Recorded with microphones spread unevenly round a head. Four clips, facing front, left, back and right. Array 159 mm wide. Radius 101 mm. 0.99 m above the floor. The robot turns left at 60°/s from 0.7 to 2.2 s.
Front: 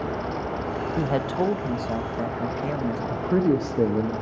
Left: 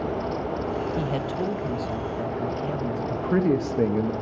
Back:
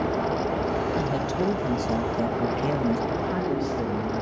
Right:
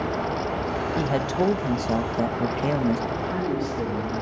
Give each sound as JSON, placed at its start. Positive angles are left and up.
{"t": 1.0, "sound": "a man speaking", "azimuth_deg": -25, "distance_m": 1.1}
{"t": 3.1, "sound": "a man speaking", "azimuth_deg": 65, "distance_m": 1.3}